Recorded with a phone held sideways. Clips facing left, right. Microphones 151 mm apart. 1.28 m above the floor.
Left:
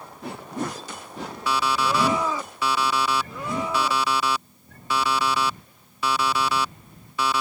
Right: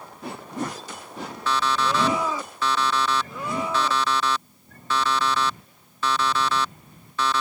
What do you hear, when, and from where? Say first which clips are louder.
1.5 s an alarm clock: even; 10° left (ahead or behind)